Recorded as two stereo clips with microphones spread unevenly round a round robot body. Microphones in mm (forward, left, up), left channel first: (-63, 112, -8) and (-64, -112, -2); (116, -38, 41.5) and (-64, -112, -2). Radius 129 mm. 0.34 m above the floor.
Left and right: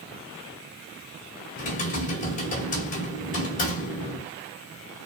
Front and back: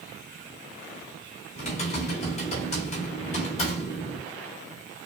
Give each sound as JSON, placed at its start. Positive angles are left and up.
{"t": 1.6, "sound": "typing on a keyboard", "azimuth_deg": 80, "distance_m": 1.7}